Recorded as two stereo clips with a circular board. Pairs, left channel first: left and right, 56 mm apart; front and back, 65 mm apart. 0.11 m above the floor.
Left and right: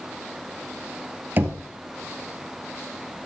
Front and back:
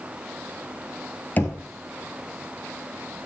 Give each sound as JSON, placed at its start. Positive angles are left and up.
{"t": 1.4, "sound": "knocking", "azimuth_deg": -50, "distance_m": 1.4}